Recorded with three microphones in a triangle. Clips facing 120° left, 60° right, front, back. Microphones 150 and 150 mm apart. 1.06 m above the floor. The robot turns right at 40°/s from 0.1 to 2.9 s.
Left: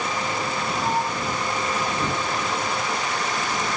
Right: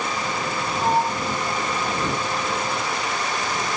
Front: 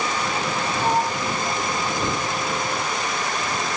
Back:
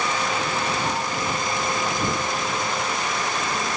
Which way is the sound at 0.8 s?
15° right.